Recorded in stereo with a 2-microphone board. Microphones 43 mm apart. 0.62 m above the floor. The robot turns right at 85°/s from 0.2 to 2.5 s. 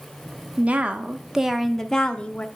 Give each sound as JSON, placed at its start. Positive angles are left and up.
{"t": 0.6, "sound": "a woman speaking", "azimuth_deg": -85, "distance_m": 0.6}